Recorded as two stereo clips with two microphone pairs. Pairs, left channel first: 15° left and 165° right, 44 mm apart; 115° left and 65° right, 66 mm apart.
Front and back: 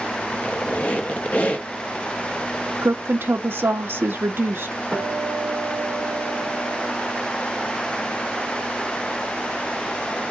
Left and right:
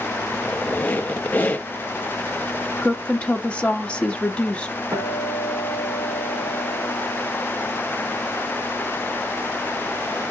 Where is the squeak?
60° left, 0.6 m.